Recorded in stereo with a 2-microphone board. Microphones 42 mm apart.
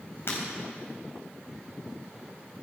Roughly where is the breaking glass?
Left.